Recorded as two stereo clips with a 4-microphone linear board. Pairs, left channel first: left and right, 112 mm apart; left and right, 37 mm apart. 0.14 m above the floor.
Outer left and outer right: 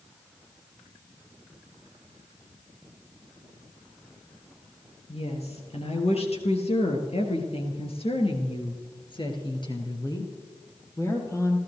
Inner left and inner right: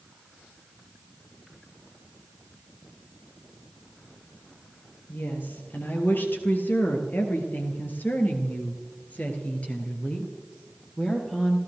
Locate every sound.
5.1 s a woman speaking: 60° left (ahead or behind), 4 m; by 11.6 s 25° left (ahead or behind), 3.5 m